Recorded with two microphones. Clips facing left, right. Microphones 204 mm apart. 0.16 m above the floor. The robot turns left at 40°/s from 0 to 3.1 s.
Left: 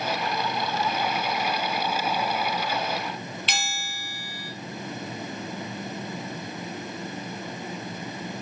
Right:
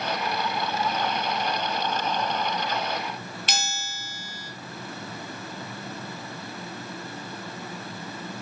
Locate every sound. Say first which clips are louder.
3.5 s a bell: right 1 dB; 45° right (ahead or behind), 3 m